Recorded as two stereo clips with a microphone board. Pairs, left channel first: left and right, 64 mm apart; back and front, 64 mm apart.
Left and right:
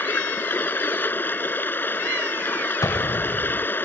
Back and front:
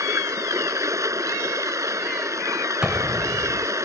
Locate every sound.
0.0 s running water: 35° left
2.8 s an explosion: 75° left